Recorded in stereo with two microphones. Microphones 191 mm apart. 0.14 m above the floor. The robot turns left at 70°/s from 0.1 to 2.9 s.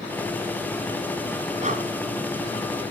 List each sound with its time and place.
1.6 s breathing: 35° right (ahead or behind), 1.5 m; by 1.8 s 45° right (ahead or behind), 1.5 m